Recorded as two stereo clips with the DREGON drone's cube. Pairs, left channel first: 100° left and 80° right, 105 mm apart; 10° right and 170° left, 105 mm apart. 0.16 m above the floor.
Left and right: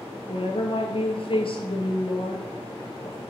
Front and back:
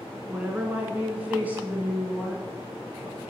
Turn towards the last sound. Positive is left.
turn(degrees=100)